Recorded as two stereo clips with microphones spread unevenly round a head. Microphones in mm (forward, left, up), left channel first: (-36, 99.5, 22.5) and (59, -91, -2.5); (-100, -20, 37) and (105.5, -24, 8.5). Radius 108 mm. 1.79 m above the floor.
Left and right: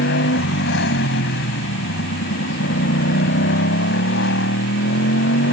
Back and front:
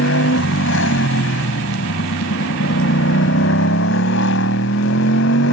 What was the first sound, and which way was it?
A motorcycle, 150° left.